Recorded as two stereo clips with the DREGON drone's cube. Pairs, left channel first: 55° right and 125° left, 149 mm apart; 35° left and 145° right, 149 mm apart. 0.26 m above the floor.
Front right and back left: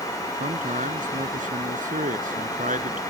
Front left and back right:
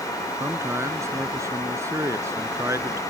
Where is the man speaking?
145° left.